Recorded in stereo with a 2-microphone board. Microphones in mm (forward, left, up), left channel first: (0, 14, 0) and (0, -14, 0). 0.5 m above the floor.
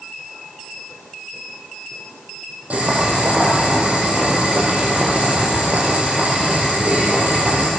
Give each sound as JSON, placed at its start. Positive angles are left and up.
{"t": 2.7, "sound": "boiling", "side_deg": -60, "distance_m": 6.5}